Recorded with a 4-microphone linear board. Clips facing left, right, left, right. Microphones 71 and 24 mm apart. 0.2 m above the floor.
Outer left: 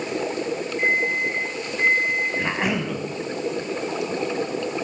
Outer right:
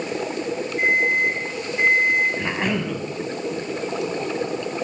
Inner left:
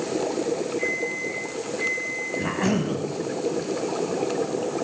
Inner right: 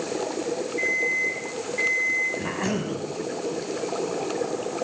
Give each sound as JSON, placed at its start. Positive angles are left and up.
{"t": 0.8, "sound": "an alarm clock", "side_deg": -80, "distance_m": 6.0}
{"t": 2.4, "sound": "a cough", "side_deg": 5, "distance_m": 1.1}